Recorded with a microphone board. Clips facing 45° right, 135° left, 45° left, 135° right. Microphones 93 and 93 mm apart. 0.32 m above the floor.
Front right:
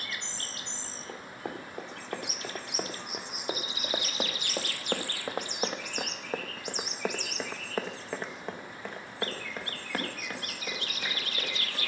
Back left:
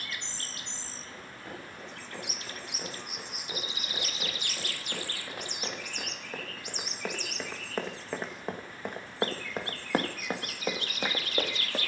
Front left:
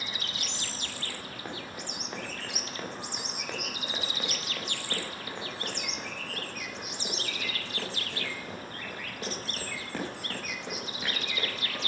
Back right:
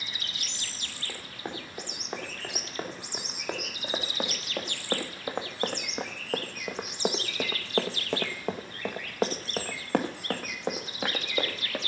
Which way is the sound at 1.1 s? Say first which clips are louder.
Front right 6 dB, back right 5 dB; 65° right.